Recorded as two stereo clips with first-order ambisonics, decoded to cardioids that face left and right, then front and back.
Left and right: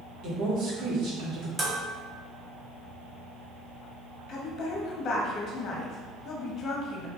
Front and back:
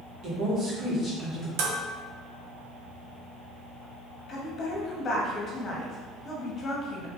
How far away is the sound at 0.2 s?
About 1.7 m.